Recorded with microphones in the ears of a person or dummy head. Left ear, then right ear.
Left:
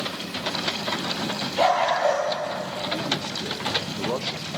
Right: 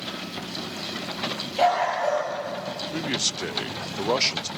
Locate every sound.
1.6 s a dog barking: 10° right (ahead or behind), 6 m
2.9 s a man speaking: 60° right (ahead or behind), 0.6 m